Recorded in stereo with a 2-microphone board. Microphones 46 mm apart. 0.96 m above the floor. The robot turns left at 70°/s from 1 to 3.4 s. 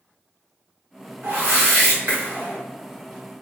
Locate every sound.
1.2 s a whoosh: 60° right, 1.2 m; by 2.6 s 155° right, 1.2 m